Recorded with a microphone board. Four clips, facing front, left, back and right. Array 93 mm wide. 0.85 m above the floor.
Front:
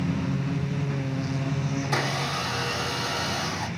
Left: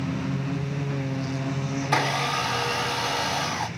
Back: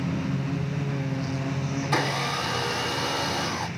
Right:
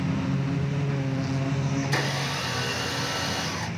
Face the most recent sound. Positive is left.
turn(degrees=90)